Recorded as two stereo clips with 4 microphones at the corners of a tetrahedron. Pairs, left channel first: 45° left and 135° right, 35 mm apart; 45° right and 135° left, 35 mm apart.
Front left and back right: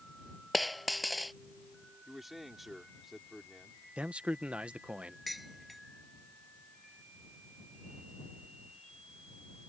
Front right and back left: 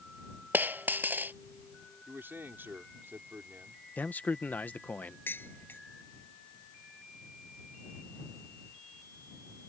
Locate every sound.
0.5 s a dropped coin: 135° left
2.1 s a man speaking: 135° left
4.0 s a man speaking: 80° right
5.3 s dishes clattering: 45° right